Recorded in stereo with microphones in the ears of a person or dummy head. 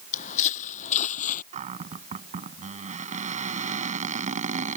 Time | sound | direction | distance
0.1 | footsteps | 45° left (ahead or behind) | ?
1.5 | a cupboard door | 45° right (ahead or behind) | ?